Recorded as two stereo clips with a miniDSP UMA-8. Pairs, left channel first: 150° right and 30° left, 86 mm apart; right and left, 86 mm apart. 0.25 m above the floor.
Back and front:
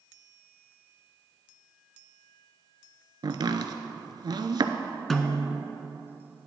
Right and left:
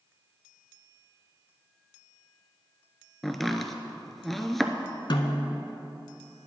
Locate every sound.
3.2 s chopping: straight ahead, 0.6 m
5.1 s a snare drum: 65° right, 0.7 m